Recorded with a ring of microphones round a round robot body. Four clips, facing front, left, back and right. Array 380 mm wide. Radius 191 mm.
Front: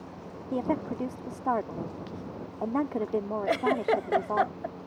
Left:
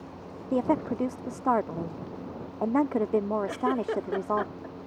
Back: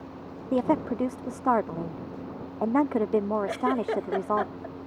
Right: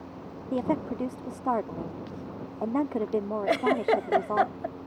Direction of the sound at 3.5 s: 60° right.